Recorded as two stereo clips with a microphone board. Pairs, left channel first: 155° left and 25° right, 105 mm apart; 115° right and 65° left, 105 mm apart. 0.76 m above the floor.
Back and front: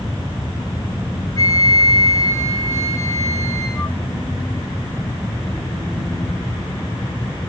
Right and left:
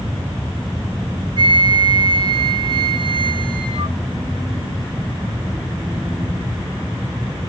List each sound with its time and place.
1.4 s a flute: 100° left, 0.6 m